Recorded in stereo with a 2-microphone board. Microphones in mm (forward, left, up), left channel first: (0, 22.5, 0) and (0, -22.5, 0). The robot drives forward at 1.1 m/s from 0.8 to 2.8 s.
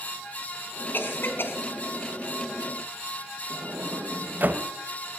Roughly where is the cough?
Left.